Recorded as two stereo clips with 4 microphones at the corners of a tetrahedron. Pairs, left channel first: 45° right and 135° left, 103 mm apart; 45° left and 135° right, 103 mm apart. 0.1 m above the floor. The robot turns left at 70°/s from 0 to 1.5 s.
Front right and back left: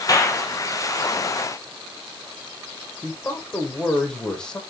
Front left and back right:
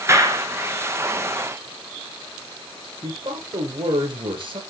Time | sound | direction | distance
0.1 | a clap | 80° right | 1.3 m
3.0 | a man speaking | 125° right | 2.5 m